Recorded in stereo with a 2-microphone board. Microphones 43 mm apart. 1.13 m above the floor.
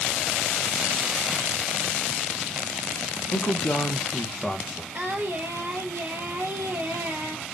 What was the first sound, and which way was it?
A man speaking, 45° left (ahead or behind).